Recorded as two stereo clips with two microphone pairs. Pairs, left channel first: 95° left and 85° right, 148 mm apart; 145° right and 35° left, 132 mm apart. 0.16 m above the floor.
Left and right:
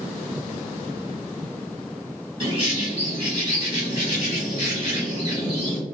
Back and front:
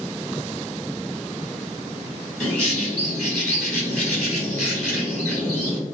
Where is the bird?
60° right, 1.7 m.